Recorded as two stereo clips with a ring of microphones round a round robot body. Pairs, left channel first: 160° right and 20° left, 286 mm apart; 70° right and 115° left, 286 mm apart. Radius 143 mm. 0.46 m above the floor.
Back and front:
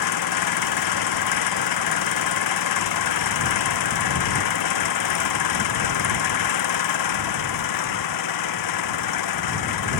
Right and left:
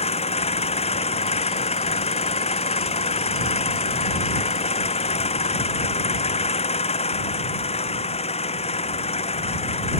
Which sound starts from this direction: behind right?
An engine running, at 0.0 s.